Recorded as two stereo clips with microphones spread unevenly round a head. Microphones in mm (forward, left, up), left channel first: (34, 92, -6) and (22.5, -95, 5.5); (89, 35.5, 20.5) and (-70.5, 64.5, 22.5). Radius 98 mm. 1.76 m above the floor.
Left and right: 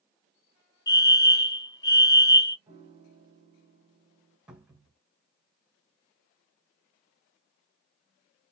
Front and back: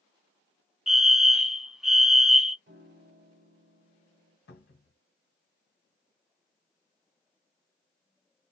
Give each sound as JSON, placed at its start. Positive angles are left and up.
{"t": 0.9, "sound": "a fire alarm", "azimuth_deg": 85, "distance_m": 0.5}
{"t": 2.7, "sound": "a piano", "azimuth_deg": -160, "distance_m": 0.9}
{"t": 4.5, "sound": "a cupboard door", "azimuth_deg": -10, "distance_m": 1.4}